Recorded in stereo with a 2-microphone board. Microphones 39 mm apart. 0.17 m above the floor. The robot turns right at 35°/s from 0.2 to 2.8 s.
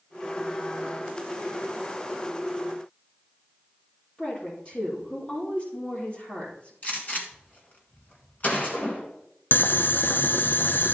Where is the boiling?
60° left (ahead or behind), 0.5 m.